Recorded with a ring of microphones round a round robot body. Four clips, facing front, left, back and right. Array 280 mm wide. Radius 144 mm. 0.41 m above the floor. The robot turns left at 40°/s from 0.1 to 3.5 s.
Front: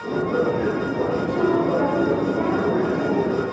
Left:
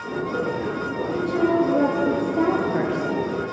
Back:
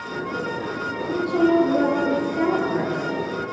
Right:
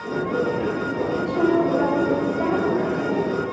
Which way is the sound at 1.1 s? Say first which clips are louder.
Right 1 dB, back 4 dB; 165° left.